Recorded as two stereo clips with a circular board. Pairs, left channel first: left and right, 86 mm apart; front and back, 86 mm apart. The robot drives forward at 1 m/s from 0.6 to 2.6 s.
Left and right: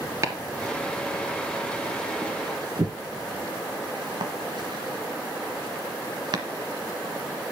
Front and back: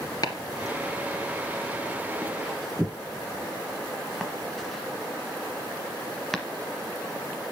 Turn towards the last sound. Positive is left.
turn(degrees=-85)